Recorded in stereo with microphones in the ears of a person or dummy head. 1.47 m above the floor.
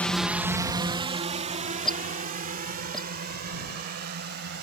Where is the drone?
15° left (ahead or behind); by 4.6 s 50° right (ahead or behind).